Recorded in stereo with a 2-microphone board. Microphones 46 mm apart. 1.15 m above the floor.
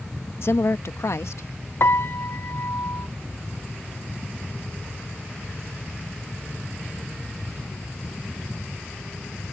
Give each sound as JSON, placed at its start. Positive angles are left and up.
{"t": 0.4, "sound": "a woman speaking", "side_deg": 60}
{"t": 1.8, "sound": "a piano", "side_deg": 55}